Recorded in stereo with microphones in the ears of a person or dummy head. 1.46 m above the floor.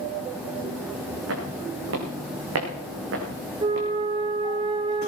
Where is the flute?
25° right (ahead or behind), 0.9 m.